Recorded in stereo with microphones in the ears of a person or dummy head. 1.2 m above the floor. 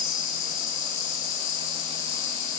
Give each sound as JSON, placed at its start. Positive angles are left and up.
{"t": 0.0, "sound": "an insect", "side_deg": 65, "distance_m": 5.0}